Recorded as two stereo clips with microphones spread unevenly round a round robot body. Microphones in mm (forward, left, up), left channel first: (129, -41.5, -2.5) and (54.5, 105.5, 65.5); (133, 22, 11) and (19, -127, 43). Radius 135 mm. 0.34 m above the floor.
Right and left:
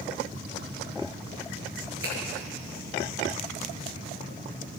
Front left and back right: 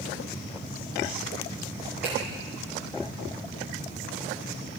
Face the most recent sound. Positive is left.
turn(degrees=145)